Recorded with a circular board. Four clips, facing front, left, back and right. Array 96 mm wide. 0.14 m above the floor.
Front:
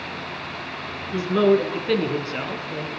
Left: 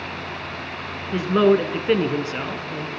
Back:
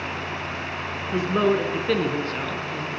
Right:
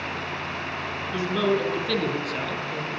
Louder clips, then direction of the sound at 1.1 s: Left 7 dB, front 3 dB; 115° left.